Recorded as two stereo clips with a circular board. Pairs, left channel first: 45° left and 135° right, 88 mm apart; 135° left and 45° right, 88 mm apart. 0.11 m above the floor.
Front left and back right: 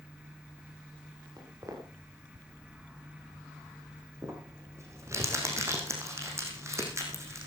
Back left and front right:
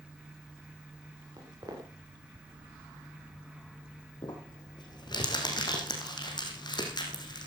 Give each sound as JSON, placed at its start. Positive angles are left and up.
{"t": 1.4, "sound": "footsteps", "azimuth_deg": -85, "distance_m": 5.0}
{"t": 4.2, "sound": "crumpling", "azimuth_deg": 170, "distance_m": 4.0}